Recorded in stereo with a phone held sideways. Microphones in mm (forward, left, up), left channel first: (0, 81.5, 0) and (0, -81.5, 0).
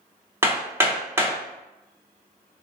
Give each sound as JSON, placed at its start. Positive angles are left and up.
{"t": 0.4, "sound": "hammering", "side_deg": -15, "distance_m": 0.9}